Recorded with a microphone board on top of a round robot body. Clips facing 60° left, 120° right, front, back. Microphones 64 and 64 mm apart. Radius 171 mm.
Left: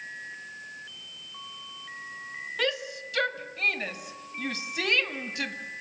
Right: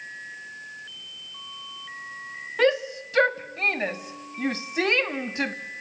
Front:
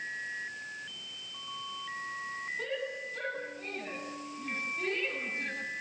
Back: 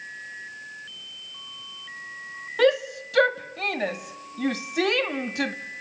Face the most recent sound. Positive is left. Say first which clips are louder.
# right 9 dB, back 20 dB
turn(degrees=180)